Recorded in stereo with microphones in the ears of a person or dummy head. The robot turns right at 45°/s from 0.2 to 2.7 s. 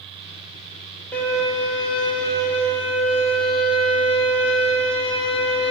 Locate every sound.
1.1 s a violin: 10° left, 1.3 m; by 5.7 s 85° left, 1.3 m